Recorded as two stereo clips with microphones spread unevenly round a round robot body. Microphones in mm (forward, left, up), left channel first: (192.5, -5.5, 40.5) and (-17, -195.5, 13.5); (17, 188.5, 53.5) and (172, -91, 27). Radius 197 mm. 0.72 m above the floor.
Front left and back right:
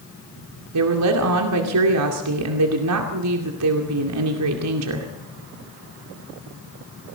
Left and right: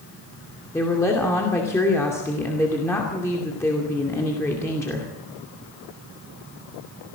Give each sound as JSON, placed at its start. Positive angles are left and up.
{"t": 0.7, "sound": "a woman speaking", "azimuth_deg": -155, "distance_m": 2.5}